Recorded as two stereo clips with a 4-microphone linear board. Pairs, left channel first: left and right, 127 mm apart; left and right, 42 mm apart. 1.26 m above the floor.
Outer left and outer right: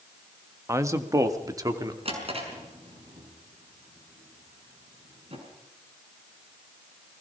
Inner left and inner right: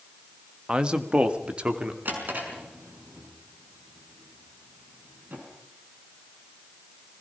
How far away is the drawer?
About 5.5 m.